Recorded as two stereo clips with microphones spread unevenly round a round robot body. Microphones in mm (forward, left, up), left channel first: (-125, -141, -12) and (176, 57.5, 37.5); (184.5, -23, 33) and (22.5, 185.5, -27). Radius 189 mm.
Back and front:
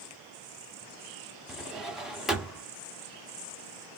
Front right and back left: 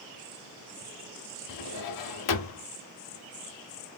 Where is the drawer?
60° right, 1.0 m.